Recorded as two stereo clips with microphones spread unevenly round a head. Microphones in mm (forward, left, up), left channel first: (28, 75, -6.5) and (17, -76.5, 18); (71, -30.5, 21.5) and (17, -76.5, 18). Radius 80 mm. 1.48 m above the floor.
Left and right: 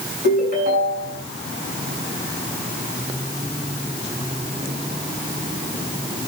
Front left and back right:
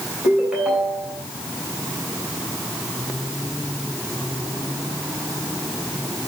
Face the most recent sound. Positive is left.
turn(degrees=-65)